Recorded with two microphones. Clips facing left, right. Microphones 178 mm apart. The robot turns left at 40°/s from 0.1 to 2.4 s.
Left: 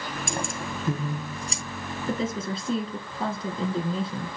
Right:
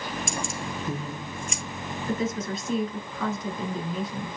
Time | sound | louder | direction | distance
0.3 | keys jangling | left 1 dB | 60° left (ahead or behind) | 1.9 m
2.1 | a woman speaking | even | 25° left (ahead or behind) | 1.5 m